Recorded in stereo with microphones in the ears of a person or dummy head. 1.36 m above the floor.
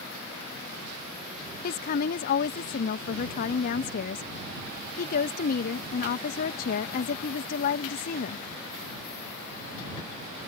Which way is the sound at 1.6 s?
55° left (ahead or behind).